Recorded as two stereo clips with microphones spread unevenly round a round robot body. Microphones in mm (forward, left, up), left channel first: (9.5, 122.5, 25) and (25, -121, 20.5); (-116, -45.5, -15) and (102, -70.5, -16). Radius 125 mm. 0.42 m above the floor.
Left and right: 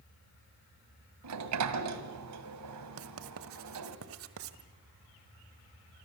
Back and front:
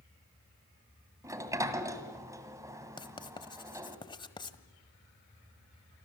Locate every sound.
1.2 s a sliding door: 80° right, 2 m
3.0 s writing: 115° right, 1.4 m